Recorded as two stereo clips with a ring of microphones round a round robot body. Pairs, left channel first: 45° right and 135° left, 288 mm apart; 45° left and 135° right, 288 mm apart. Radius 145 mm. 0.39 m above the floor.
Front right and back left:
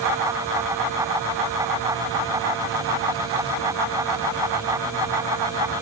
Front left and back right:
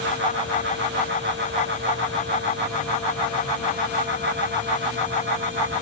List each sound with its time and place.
Only background noise.